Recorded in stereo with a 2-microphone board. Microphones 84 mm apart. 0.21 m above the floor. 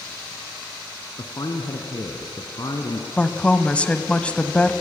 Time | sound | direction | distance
1.2 | a man speaking | 50° left (ahead or behind) | 1.7 m
3.2 | a woman speaking | 15° left (ahead or behind) | 1.0 m